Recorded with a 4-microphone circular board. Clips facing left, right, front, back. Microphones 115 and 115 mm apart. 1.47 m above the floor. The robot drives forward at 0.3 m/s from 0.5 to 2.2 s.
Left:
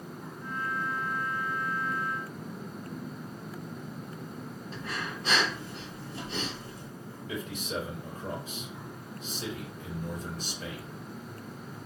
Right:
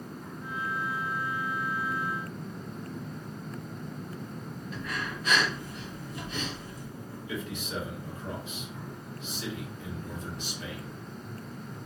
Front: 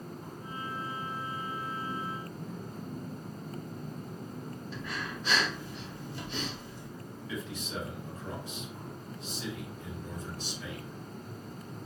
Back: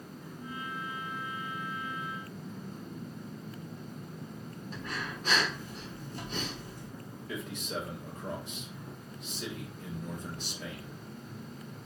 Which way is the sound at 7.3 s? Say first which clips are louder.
Left 1 dB, back 1 dB; 140° left.